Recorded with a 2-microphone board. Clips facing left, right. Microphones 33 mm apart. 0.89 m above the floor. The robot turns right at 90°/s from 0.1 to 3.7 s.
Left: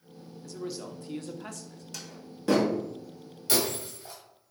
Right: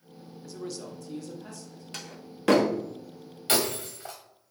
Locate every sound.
0.4 s a man speaking: 15° right, 1.0 m; by 1.8 s 110° left, 1.0 m
1.9 s a door slam: 40° right (ahead or behind), 1.1 m; by 2.7 s 65° right (ahead or behind), 1.1 m
3.5 s breaking glass: 45° right (ahead or behind), 1.9 m; by 4.2 s 65° right (ahead or behind), 1.9 m